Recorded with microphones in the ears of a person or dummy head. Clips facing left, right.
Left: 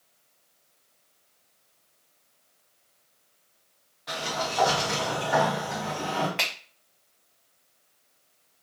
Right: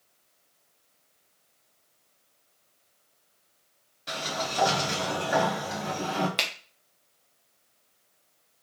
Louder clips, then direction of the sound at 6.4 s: Left 1 dB; 50° right (ahead or behind).